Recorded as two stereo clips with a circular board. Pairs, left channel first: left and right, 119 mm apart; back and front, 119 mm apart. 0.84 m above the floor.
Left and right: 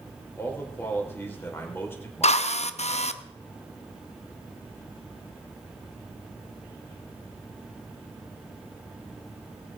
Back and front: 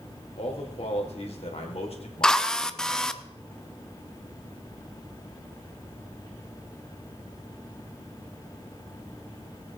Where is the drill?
95° left, 0.6 m.